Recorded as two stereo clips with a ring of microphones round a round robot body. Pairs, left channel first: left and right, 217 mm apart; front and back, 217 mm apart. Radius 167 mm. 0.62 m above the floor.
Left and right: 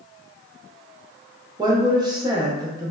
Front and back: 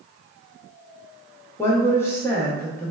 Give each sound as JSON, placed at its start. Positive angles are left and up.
{"t": 1.6, "sound": "a woman speaking", "azimuth_deg": -60, "distance_m": 0.6}